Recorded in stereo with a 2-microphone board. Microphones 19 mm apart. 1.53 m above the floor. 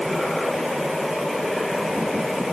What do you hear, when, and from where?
Only background noise.